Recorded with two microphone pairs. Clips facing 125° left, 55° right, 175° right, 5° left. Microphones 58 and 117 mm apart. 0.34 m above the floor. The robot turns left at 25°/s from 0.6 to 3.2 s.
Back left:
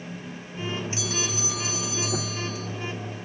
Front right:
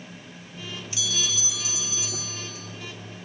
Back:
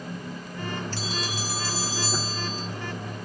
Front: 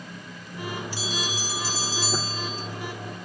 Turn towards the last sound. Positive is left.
turn(degrees=120)